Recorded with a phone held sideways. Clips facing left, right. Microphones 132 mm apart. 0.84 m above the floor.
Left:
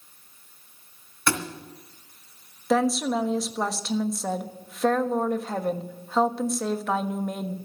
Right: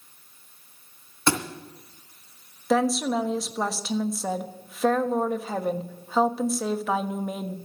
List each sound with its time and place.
1.3 s a thud: 25° right (ahead or behind), 2 m
2.7 s a woman speaking: 5° right (ahead or behind), 1.2 m